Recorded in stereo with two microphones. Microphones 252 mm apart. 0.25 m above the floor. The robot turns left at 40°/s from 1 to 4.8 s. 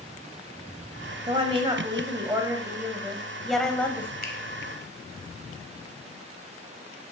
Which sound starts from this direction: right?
A woman speaking, at 1.3 s.